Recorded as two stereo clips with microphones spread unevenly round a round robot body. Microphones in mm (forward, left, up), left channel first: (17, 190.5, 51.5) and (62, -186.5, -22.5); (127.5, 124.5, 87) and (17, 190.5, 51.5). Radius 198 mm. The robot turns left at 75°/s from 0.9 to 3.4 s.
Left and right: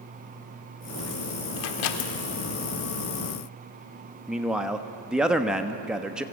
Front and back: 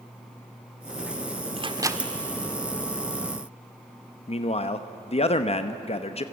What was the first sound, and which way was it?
A microwave, 110° left.